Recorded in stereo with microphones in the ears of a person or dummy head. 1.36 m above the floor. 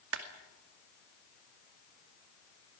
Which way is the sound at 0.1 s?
75° right (ahead or behind).